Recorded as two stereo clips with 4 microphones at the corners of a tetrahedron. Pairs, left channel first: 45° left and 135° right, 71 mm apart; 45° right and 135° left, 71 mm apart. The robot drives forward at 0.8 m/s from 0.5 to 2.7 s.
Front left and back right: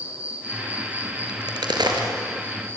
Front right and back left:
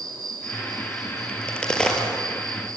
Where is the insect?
155° left, 3.5 m; by 2.8 s 165° left, 5 m.